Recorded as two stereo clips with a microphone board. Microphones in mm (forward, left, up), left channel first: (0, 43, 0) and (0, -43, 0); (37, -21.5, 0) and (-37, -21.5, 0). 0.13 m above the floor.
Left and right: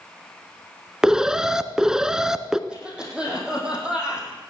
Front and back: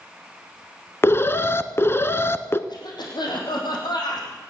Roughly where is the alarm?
Ahead.